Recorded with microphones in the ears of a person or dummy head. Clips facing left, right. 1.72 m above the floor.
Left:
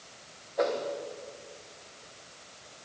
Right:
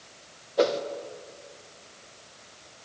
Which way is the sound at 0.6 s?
45° right (ahead or behind).